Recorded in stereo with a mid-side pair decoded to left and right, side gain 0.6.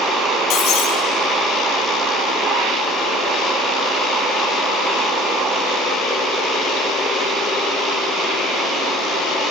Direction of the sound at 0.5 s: 55° left.